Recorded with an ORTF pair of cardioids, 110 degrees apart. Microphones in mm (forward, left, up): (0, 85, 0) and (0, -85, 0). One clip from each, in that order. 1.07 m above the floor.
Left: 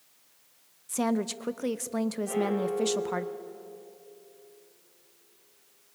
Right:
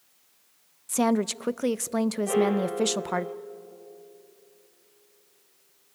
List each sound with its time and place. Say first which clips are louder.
0.9 s a woman speaking: right 5 dB; 25° right, 0.5 m
2.3 s a piano: right 5 dB; 50° right, 2 m